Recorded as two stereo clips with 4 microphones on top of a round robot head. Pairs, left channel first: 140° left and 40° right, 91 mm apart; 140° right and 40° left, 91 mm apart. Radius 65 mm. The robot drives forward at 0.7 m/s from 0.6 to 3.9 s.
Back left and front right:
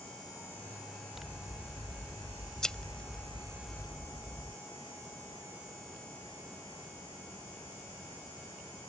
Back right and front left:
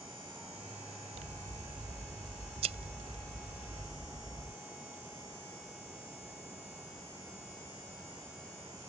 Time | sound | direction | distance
1.1 | scissors | 50° left | ?